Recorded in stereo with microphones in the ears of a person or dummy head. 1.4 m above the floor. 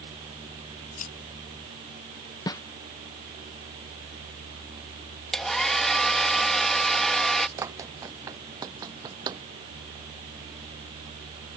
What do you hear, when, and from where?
1.0 s scissors: 40° left (ahead or behind)
2.5 s a snare drum: 20° left (ahead or behind)
5.3 s a hair dryer: centre (ahead or behind)
7.6 s running footsteps: 20° right (ahead or behind); by 9.4 s 25° right (ahead or behind)